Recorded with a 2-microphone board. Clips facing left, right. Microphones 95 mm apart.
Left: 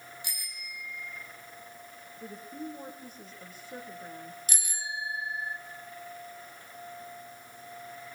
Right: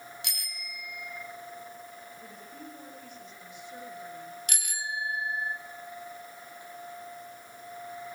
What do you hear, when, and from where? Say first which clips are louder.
0.2 s a bicycle bell: right 2 dB; 75° right (ahead or behind), 3 m
2.2 s a woman speaking: left 5 dB; 40° left (ahead or behind), 7.5 m
4.5 s a bicycle bell: right 4 dB; 60° right (ahead or behind), 2 m